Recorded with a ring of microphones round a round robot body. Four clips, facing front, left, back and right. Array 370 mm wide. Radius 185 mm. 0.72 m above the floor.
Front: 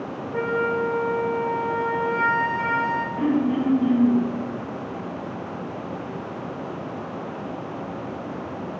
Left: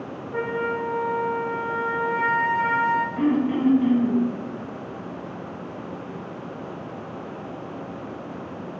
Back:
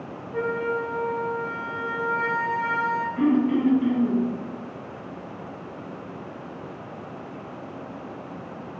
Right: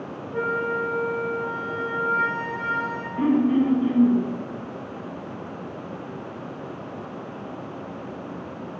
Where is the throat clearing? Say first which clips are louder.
Right 7 dB, back 2 dB; 120° left, 3.5 m.